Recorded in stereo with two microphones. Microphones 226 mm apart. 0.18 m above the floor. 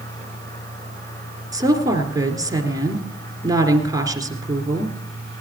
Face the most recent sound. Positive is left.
turn(degrees=-15)  # may be behind; listen again after turning